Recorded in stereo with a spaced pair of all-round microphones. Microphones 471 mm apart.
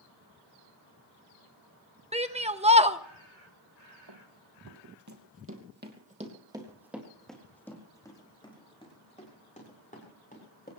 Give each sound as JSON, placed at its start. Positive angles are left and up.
{"t": 2.1, "sound": "a shout", "side_deg": -15, "distance_m": 1.1}
{"t": 4.1, "sound": "running footsteps", "side_deg": -55, "distance_m": 2.5}